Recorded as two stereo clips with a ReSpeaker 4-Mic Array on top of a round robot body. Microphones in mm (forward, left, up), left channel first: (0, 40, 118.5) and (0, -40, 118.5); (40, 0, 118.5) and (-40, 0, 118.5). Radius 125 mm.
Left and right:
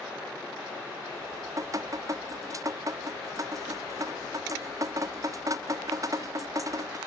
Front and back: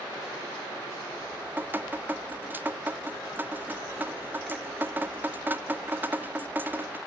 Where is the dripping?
120° right.